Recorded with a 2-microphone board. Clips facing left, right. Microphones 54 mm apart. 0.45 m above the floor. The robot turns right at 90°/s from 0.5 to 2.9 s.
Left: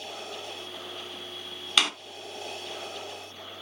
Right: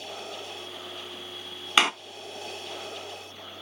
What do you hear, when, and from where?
1.8 s a door slam: 30° right (ahead or behind), 0.8 m